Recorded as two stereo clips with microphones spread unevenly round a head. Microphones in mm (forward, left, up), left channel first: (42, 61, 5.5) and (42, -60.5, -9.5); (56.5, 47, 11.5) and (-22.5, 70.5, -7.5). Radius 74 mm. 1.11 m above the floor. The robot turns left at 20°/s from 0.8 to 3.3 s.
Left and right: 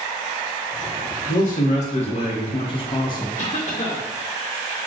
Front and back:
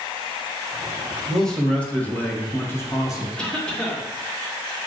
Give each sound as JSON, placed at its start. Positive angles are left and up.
{"t": 1.3, "sound": "a man speaking", "azimuth_deg": 75, "distance_m": 1.1}
{"t": 3.4, "sound": "a cough", "azimuth_deg": 60, "distance_m": 1.5}